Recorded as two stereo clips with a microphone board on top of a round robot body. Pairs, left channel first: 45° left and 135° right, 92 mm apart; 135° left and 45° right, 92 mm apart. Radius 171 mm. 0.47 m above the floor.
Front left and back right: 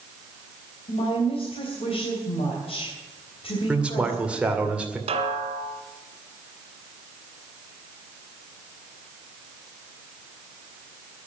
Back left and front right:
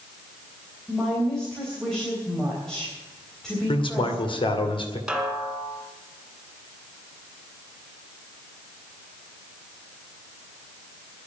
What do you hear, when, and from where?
0.9 s a woman speaking: 50° left, 3.5 m
3.7 s a man speaking: 150° left, 2.5 m
5.1 s a snare drum: 130° right, 1.7 m